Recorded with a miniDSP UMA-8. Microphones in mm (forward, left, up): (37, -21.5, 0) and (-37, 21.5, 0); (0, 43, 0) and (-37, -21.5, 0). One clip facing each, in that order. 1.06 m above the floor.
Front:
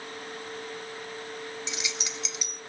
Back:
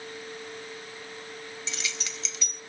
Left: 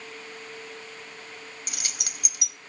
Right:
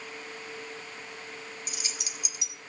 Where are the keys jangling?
45° left, 0.6 m.